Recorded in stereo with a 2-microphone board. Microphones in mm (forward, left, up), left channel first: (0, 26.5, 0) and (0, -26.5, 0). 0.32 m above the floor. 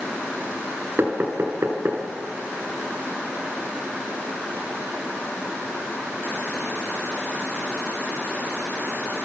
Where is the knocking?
45° right (ahead or behind), 3.5 m.